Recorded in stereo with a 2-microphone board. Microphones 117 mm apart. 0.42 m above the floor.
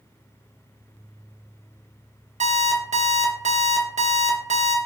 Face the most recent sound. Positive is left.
turn(degrees=-75)  # may be behind; listen again after turning